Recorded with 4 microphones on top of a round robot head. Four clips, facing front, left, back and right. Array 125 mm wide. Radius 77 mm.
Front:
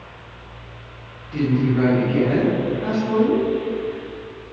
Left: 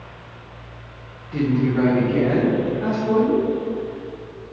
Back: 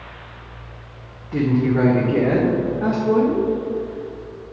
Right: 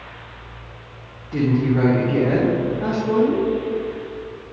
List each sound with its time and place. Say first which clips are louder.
1.3 s a woman speaking: right 1 dB, back 1 dB; 150° right, 1.0 m; by 3.5 s 170° right, 1.9 m